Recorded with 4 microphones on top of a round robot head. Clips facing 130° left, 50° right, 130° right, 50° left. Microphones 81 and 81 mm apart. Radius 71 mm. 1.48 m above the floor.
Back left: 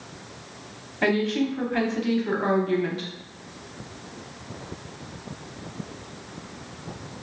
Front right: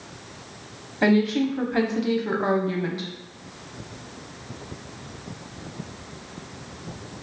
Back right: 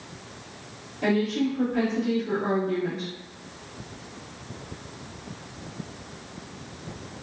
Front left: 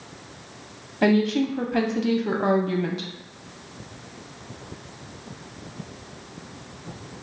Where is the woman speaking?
25° left, 0.6 m.